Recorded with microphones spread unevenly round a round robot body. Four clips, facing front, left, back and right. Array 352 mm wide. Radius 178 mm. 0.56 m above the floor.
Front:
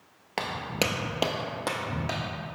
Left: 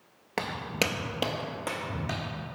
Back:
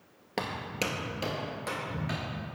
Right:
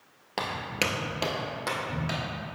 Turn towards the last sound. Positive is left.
turn(degrees=0)